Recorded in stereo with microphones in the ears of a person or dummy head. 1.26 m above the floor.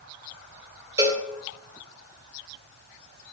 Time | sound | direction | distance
1.0 | a cowbell | 20° right (ahead or behind) | 2.0 m